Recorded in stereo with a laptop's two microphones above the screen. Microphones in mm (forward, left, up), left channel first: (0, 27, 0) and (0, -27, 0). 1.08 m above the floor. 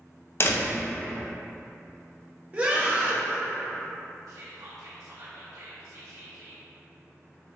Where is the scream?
25° right (ahead or behind), 0.7 m.